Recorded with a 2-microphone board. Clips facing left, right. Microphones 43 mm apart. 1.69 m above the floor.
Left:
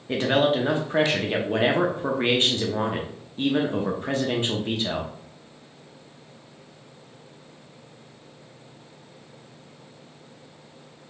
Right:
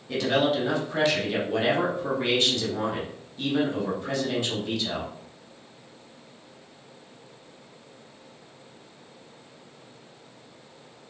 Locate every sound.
0.1 s a man speaking: 35° left (ahead or behind), 0.6 m